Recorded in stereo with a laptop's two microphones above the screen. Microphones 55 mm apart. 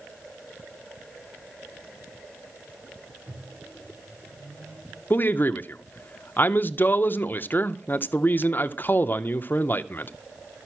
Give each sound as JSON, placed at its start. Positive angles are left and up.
{"t": 3.3, "sound": "a microwave", "side_deg": -55, "distance_m": 3.5}
{"t": 5.1, "sound": "a man speaking", "side_deg": 35, "distance_m": 0.7}